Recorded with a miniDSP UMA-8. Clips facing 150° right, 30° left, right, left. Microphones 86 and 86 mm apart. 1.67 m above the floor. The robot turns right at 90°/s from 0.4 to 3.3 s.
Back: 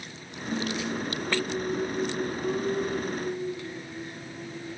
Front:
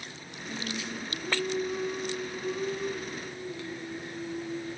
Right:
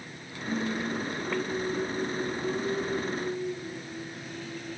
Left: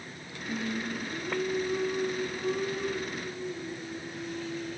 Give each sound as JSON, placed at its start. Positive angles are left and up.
{"t": 0.5, "sound": "singing", "azimuth_deg": -30, "distance_m": 7.0}